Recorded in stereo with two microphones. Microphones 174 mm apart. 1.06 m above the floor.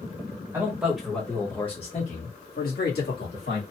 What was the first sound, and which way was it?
A man speaking, 20° right (ahead or behind).